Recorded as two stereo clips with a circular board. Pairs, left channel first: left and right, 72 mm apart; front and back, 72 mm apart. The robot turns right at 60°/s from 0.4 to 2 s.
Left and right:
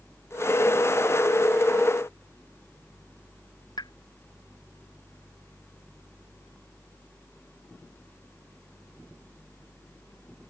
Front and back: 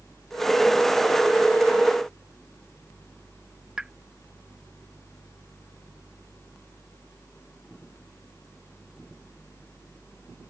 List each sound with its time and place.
3.8 s a pop: 100° left